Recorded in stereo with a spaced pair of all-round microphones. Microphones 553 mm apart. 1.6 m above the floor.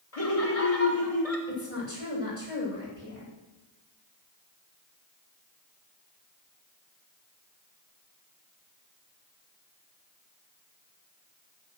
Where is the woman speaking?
70° left (ahead or behind), 8.5 m.